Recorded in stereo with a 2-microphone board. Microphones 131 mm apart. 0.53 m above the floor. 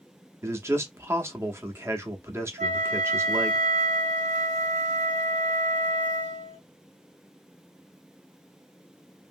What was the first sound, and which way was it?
A man speaking, 20° right (ahead or behind).